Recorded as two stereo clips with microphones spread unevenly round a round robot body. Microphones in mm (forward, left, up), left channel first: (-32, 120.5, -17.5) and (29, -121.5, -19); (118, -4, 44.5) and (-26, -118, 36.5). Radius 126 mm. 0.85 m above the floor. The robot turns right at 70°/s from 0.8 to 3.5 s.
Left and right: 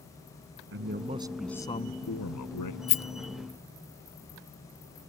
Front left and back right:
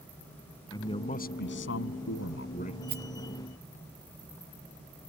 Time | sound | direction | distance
0.7 | a man speaking | 30° right | ?
2.9 | a rattle | 145° left | ?